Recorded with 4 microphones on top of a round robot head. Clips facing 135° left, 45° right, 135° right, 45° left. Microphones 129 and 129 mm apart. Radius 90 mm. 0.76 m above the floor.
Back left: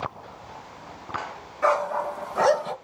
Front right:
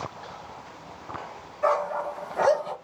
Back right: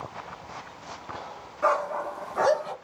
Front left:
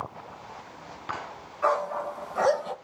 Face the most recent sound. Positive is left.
turn(degrees=125)